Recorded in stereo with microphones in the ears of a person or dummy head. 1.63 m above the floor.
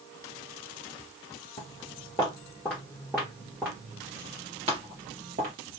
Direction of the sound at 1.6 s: 25° left (ahead or behind).